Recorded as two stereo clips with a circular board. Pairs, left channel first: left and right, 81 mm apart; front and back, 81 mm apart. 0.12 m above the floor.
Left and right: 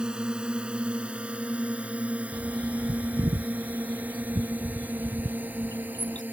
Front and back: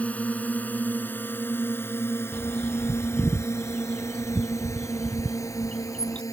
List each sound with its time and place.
0.0 s a drone: 30° right
2.3 s a bird: 75° right